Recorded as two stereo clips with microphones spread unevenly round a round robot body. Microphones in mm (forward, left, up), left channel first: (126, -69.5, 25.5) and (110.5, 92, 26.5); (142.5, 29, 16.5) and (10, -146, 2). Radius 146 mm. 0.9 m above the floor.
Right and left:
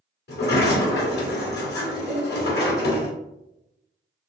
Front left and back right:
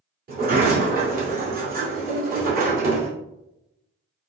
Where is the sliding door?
80° right, 2 m.